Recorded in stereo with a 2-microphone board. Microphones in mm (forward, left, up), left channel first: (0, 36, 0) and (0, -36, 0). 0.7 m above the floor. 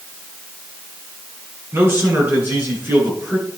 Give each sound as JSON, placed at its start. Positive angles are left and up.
{"t": 1.7, "sound": "a man speaking", "side_deg": -35, "distance_m": 7.5}